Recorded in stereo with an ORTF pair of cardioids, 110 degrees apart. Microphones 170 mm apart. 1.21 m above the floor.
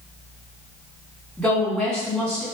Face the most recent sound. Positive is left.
turn(degrees=5)